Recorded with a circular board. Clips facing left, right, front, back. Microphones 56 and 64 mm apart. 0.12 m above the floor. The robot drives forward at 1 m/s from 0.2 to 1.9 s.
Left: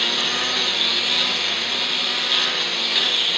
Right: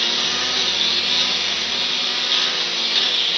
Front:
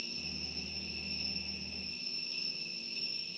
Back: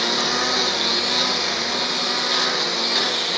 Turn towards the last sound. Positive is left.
turn(degrees=175)